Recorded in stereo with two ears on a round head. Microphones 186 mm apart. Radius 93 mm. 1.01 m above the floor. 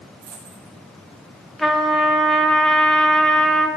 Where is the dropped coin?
45° right (ahead or behind), 5 m.